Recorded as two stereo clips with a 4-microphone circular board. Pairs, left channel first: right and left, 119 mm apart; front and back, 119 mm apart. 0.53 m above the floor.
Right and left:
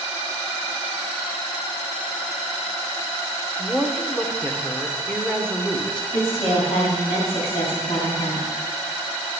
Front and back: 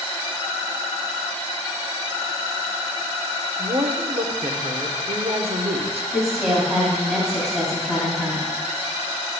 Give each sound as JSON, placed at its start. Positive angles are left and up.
{"t": 3.6, "sound": "a woman speaking", "azimuth_deg": -170, "distance_m": 1.1}
{"t": 6.1, "sound": "a woman speaking", "azimuth_deg": -95, "distance_m": 2.5}